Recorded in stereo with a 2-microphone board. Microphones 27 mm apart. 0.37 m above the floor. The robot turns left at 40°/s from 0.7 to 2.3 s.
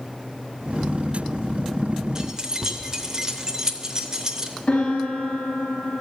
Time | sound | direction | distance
2.1 | keys jangling | 30° right (ahead or behind) | 0.8 m
4.7 | a piano | 60° left (ahead or behind) | 3 m